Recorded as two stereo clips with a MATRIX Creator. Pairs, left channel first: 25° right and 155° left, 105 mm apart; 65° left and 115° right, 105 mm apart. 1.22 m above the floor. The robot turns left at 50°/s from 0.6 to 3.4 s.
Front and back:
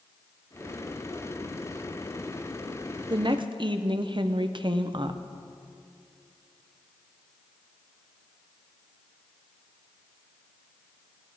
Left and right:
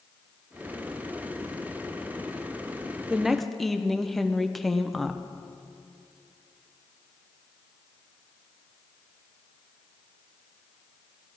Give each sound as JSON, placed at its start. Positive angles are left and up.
{"t": 3.1, "sound": "a woman speaking", "azimuth_deg": 170, "distance_m": 0.7}